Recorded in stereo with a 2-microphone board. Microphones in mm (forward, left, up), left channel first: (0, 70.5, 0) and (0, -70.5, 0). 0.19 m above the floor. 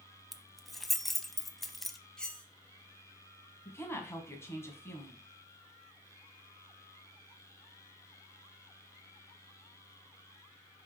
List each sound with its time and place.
0.3 s keys jangling: centre (ahead or behind), 0.7 m
2.2 s cutlery clinking: 5° left (ahead or behind), 1.1 m
3.6 s a woman speaking: 20° left (ahead or behind), 1.6 m